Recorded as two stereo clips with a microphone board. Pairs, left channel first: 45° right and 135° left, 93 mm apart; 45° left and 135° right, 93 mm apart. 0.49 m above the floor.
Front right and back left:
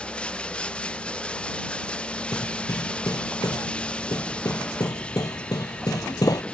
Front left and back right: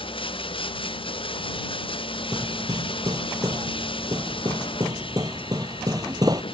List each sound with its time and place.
0.0 s running water: 35° left
2.3 s hammering: 90° right